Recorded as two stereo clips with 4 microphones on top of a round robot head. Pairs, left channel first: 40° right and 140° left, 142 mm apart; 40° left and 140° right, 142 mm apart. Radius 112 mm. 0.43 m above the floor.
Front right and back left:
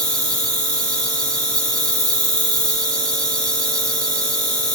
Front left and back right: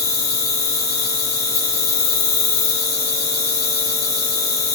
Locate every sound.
0.0 s an insect: 40° left, 5 m